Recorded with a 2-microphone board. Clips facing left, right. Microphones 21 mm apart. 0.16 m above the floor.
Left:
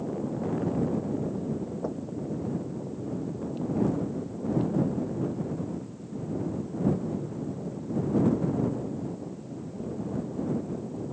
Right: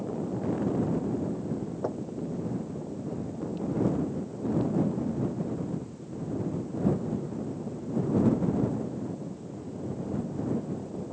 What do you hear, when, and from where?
1.8 s knocking: 15° right (ahead or behind)